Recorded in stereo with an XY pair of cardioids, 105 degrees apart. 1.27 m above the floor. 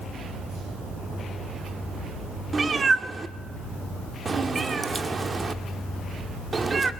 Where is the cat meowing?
35° right, 1.8 m.